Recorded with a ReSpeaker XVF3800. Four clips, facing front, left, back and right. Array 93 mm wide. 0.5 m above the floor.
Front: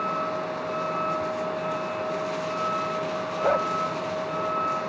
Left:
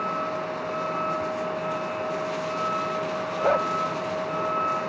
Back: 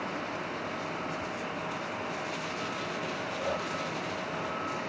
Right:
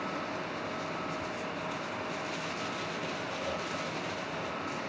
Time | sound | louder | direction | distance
0.0 | a vehicle | left 8 dB, front 8 dB | 40° left | ?
3.4 | a dog barking | left 17 dB, front 11 dB | 55° left | ?